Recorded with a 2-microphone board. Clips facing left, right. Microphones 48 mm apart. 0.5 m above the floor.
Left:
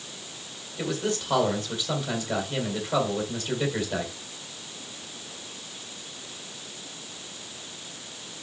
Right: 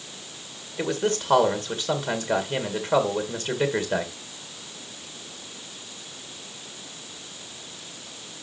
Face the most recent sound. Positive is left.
turn(degrees=-45)  # may be behind; listen again after turning